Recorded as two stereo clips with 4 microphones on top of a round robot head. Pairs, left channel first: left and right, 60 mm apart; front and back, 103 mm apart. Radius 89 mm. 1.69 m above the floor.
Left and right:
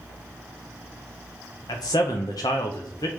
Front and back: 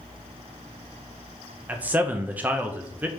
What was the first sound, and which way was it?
A man speaking, 110° left.